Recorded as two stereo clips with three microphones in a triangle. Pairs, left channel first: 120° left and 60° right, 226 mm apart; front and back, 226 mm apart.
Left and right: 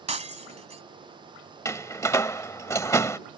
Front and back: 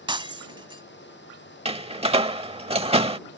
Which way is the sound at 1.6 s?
Straight behind.